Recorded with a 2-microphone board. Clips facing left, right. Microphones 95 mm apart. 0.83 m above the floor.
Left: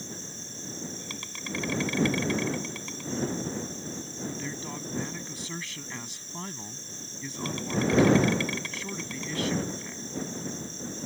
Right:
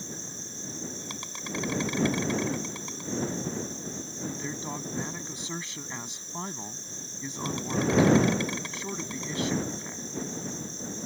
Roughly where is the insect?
Right.